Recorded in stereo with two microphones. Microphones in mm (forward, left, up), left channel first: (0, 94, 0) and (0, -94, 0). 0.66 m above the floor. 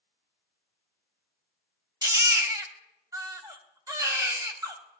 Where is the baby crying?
20° right (ahead or behind), 1.0 m.